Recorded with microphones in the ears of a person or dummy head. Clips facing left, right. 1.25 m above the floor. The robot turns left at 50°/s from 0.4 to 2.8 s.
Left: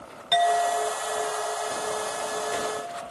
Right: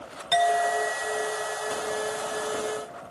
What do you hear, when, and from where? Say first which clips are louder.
0.3 s a clink: left 1 dB; 5° right; by 3.1 s 125° right